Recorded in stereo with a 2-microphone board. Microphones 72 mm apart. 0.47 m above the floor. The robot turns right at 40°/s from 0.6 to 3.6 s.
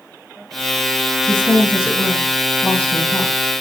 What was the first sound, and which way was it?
A woman speaking, 35° right.